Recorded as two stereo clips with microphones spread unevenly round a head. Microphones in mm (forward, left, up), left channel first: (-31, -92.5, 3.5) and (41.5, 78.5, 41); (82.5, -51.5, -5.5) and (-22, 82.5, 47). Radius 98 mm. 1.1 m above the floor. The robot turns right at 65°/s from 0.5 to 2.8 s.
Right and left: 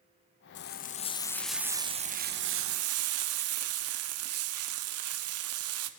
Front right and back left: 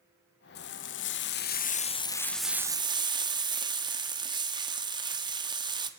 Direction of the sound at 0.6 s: 85° right.